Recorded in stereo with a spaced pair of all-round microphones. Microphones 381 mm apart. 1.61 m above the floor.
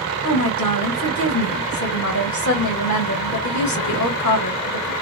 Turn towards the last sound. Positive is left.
turn(degrees=50)  # may be behind; listen again after turning